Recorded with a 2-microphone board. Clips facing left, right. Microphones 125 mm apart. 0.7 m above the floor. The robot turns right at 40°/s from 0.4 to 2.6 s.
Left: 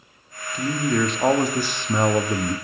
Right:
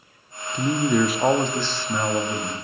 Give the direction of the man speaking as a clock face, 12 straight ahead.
1 o'clock.